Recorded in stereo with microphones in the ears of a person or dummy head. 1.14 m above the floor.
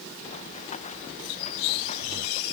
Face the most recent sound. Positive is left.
turn(degrees=40)  # may be behind; listen again after turning